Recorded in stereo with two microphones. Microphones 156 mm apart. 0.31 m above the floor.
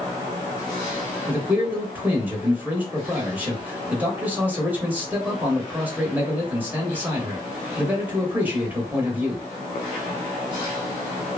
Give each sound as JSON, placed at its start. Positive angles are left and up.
{"t": 1.3, "sound": "a man speaking", "side_deg": -10, "distance_m": 0.9}